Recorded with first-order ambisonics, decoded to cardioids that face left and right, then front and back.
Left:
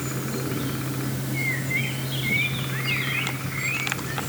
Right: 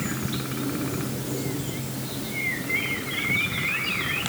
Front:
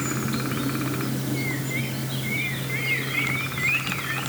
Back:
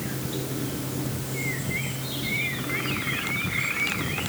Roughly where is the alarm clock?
No alarm clock in this recording.